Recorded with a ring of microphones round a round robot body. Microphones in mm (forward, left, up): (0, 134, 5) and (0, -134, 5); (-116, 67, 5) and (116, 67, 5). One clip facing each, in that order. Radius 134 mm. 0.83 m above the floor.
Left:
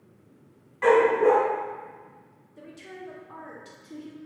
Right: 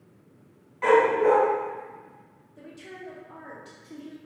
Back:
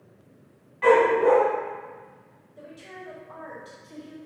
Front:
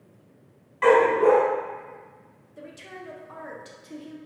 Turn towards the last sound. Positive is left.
turn(degrees=20)